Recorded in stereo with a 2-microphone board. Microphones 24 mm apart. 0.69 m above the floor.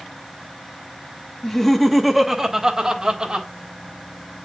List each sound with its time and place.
1.4 s laughter: 20° left (ahead or behind), 1.0 m; by 3.5 s 30° right (ahead or behind), 1.7 m